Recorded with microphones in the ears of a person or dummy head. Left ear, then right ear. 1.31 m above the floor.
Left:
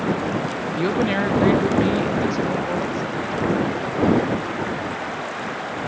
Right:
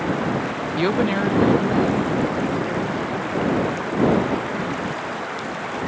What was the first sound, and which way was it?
A woman speaking, 25° right (ahead or behind).